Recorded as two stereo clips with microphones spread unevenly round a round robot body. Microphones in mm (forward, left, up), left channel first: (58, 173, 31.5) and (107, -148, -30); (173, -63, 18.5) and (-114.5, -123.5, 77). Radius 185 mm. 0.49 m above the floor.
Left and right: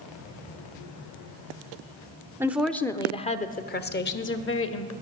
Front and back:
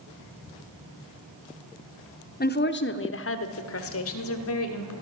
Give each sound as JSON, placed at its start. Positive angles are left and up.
{"t": 2.4, "sound": "a woman speaking", "azimuth_deg": -15, "distance_m": 1.0}